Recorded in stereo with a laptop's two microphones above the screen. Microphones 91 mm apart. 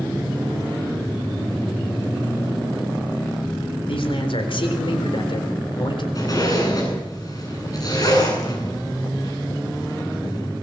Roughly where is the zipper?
Left.